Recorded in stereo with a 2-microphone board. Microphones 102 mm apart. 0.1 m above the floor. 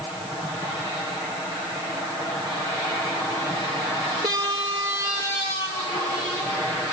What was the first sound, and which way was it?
Only background noise.